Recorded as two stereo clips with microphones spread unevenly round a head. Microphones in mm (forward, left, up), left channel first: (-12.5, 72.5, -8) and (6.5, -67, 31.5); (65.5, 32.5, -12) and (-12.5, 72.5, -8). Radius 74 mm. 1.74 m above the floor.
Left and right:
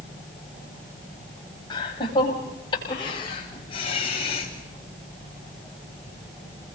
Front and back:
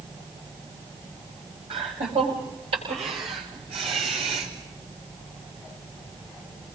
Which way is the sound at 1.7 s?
165° left.